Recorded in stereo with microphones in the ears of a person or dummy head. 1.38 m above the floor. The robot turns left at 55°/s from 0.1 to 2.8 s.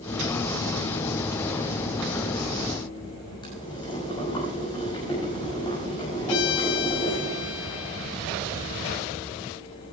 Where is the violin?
70° left (ahead or behind), 0.9 m.